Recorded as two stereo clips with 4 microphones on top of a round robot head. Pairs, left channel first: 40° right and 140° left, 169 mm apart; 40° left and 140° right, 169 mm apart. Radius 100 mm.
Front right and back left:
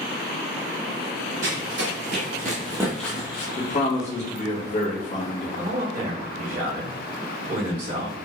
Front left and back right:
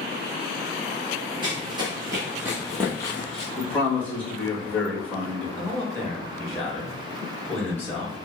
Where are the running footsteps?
155° left, 1.5 m; by 3.5 s 5° right, 0.8 m.